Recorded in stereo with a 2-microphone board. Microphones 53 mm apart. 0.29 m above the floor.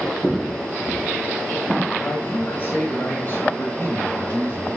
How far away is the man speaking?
About 2 m.